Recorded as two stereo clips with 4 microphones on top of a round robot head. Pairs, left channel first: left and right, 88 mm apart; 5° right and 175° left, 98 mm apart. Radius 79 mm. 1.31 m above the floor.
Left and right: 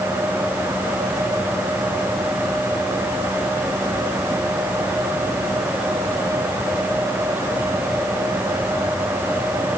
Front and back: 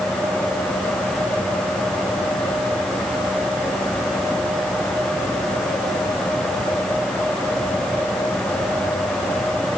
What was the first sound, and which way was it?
Only background noise.